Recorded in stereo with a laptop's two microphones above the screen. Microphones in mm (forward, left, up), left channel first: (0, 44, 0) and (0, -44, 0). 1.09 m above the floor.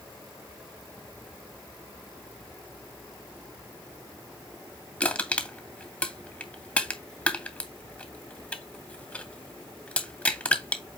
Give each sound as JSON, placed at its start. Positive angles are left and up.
{"t": 5.0, "sound": "crushing", "side_deg": 15, "distance_m": 2.5}